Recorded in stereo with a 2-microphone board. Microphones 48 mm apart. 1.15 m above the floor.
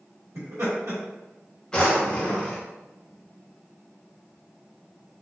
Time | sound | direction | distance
0.3 | laughter | 75° right (ahead or behind) | 1.4 m
1.7 | a drawer | 15° left (ahead or behind) | 1.0 m